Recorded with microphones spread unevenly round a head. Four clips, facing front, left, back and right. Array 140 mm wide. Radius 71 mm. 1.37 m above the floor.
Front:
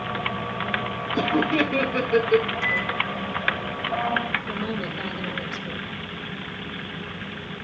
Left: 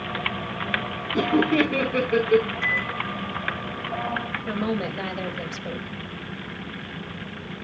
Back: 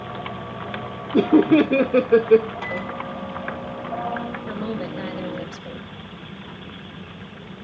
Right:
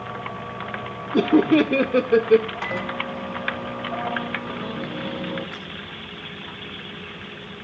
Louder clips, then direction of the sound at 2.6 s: Right 1 dB, front 2 dB; 135° right.